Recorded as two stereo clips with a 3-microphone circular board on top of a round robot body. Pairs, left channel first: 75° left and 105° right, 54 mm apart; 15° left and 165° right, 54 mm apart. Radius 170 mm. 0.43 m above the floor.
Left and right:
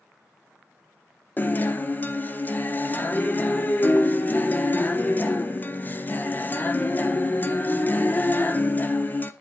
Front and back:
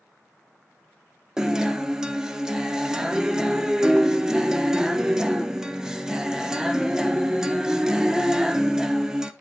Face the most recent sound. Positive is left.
turn(degrees=120)